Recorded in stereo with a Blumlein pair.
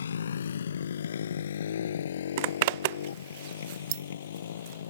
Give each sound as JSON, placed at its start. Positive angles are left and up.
{"t": 0.0, "sound": "a motorcycle", "azimuth_deg": 70}
{"t": 2.4, "sound": "a zipper", "azimuth_deg": -50}